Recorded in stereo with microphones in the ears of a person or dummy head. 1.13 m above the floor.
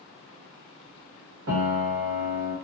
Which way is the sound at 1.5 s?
60° right (ahead or behind).